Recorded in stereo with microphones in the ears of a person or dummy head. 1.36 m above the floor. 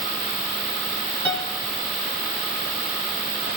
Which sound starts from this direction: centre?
A piano, at 1.2 s.